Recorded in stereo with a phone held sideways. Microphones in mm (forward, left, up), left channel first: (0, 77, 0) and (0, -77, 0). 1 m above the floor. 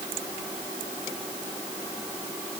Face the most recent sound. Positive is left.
No sound to turn to.